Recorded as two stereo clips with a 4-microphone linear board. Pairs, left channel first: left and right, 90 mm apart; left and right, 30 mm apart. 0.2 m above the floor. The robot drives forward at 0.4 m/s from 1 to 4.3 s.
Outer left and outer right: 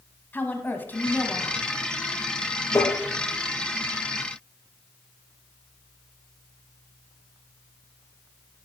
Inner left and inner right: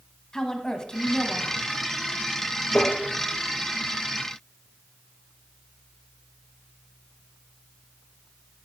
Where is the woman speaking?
20° left (ahead or behind), 1.0 m.